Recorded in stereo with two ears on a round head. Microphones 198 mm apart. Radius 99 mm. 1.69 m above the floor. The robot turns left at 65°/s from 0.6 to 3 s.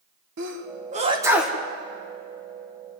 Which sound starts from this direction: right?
A sneeze, at 0.4 s.